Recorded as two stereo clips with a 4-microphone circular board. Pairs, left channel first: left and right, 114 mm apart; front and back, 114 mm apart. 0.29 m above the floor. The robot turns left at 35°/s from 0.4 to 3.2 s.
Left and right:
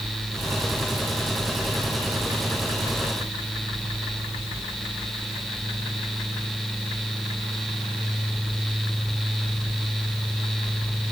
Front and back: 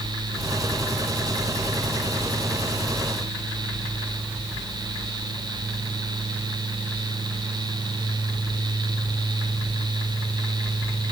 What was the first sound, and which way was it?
Only background noise.